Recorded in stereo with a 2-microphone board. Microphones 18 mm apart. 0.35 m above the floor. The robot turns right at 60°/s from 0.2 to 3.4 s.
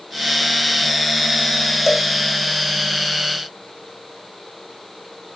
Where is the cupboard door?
I don't hear a cupboard door.